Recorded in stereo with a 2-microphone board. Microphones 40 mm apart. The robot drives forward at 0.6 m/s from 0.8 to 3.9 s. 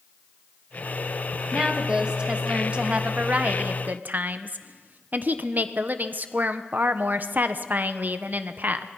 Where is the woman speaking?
20° right (ahead or behind), 2.5 m; by 8.9 s 45° right (ahead or behind), 1.0 m.